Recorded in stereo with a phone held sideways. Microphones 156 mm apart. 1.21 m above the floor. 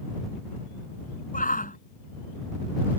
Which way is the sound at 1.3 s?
60° left (ahead or behind).